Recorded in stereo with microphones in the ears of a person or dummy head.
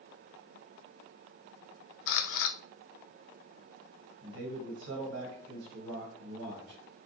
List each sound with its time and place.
2.1 s a camera shutter: 75° left (ahead or behind), 0.5 m
4.2 s a man speaking: 85° right, 2 m